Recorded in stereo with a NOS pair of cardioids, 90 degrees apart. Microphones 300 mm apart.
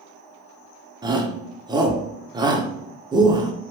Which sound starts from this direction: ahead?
A shout, at 1.0 s.